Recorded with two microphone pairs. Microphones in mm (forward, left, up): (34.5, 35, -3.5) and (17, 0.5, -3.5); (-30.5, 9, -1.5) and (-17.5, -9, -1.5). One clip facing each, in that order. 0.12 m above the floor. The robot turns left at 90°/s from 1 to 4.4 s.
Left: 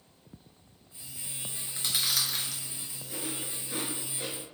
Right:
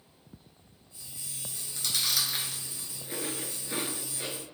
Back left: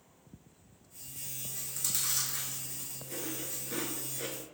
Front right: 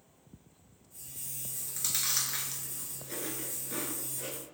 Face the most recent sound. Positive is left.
turn(degrees=140)